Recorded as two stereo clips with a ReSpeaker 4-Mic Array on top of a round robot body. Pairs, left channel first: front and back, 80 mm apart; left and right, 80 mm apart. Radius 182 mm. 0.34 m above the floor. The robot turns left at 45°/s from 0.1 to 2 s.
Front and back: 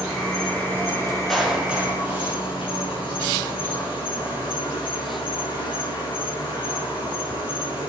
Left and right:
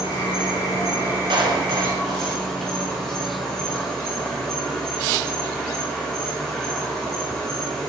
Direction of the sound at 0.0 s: 95° left.